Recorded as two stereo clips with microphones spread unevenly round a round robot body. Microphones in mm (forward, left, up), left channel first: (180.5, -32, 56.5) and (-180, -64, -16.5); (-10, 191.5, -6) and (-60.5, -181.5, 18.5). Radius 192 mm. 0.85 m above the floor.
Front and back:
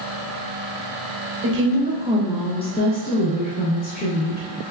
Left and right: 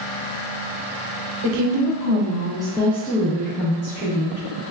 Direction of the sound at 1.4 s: 130° right.